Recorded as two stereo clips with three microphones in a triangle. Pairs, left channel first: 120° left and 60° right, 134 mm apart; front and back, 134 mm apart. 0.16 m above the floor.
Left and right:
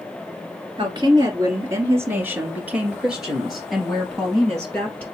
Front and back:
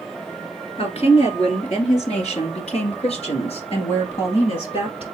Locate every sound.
0.8 s a woman speaking: 20° right, 2 m; by 5.0 s 40° left, 3.5 m